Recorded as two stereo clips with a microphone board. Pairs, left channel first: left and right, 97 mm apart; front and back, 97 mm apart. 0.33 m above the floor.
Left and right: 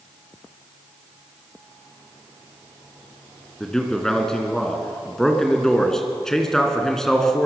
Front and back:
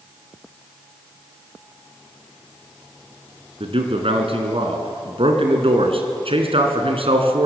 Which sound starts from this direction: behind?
A man speaking, at 3.6 s.